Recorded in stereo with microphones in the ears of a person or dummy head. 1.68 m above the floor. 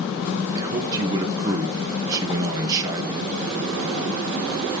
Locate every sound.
0.6 s a man speaking: 20° right (ahead or behind), 2.5 m